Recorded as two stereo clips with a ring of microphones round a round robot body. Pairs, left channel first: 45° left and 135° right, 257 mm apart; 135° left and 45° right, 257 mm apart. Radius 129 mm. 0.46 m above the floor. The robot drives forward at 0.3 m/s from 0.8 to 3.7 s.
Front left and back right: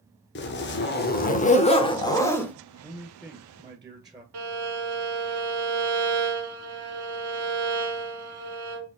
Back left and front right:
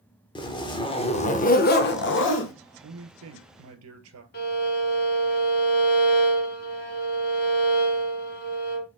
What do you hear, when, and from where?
0.3 s a zipper: 70° left, 0.7 m; by 2.5 s 130° left, 0.8 m
2.8 s a man speaking: 55° right, 1.6 m; by 4.2 s 65° right, 1.5 m
4.3 s a violin: 170° right, 1.0 m